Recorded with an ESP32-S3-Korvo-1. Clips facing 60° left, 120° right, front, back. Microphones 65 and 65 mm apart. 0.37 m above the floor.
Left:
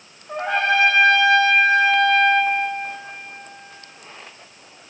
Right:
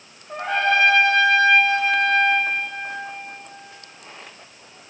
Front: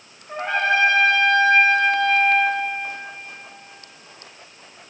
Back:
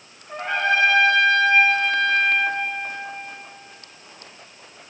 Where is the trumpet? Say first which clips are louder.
Even, front 1 dB; 65° left, 5.5 m.